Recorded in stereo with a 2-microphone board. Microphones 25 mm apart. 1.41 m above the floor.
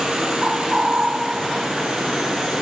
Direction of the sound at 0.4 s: 30° right (ahead or behind).